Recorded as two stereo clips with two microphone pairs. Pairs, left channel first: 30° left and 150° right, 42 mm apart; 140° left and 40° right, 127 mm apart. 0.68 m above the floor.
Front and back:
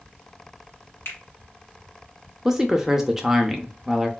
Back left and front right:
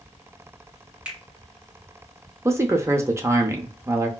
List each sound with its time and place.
1.1 s a finger snap: 45° left, 1.0 m
2.5 s a man speaking: 80° right, 0.6 m